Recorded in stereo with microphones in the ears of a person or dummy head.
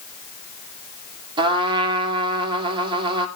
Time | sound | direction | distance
1.4 | a trumpet | 25° right (ahead or behind) | 1.9 m